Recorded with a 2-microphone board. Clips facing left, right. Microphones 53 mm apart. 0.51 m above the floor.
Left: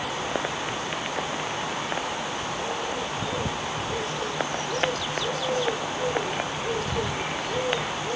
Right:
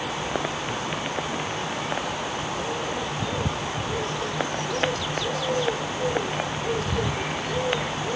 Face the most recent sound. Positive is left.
No sound to turn to.